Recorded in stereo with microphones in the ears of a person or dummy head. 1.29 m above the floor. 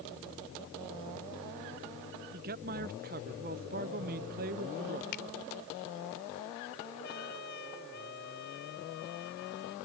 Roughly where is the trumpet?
Left.